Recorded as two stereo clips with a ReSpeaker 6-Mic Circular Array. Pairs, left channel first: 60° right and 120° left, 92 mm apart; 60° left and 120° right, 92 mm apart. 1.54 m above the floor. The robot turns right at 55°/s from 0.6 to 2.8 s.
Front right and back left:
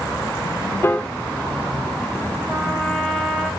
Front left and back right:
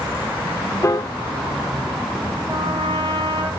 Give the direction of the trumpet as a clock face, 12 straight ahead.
5 o'clock.